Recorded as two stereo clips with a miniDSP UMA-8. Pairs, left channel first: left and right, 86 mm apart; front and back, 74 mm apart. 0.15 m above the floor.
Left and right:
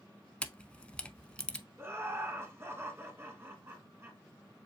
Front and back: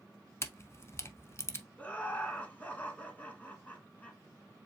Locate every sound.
0.4 s a camera shutter: 20° left, 0.5 m
1.8 s laughter: 55° right, 1.5 m